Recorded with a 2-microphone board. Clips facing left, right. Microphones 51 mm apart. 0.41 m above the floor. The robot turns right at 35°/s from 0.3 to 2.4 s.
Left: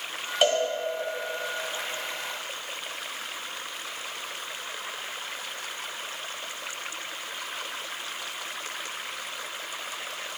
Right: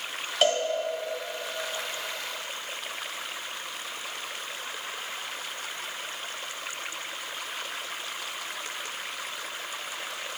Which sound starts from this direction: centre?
A cowbell, at 0.4 s.